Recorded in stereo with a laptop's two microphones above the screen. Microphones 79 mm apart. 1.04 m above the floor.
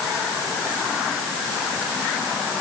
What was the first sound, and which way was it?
Only background noise.